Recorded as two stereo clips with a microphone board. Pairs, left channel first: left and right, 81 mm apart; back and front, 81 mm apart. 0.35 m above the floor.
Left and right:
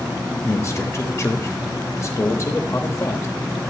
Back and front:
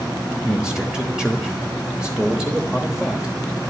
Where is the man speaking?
75° left, 1.2 m.